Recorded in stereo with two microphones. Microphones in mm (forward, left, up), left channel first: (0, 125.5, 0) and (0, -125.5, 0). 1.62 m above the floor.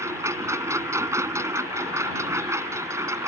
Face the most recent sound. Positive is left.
turn(degrees=-10)  # may be behind; listen again after turning